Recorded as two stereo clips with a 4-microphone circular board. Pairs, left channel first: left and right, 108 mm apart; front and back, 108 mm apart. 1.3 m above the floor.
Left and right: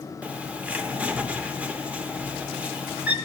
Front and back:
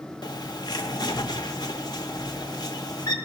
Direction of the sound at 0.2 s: 15° right.